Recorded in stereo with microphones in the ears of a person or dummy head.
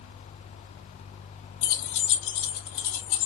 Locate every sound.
1.6 s keys jangling: 50° left (ahead or behind), 0.9 m; by 3.3 s 65° left (ahead or behind), 1.3 m